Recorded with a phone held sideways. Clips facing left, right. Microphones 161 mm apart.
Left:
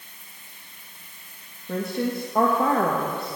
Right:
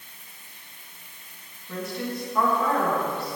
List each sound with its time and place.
1.7 s a woman speaking: 50° left (ahead or behind), 1.3 m